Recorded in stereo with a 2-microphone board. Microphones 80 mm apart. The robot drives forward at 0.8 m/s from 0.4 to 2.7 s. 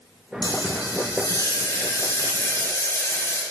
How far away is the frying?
About 1.9 m.